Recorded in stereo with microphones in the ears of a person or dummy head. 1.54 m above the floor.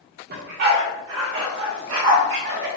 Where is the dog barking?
55° right (ahead or behind), 1.9 m; by 2.7 s 50° right (ahead or behind), 2 m.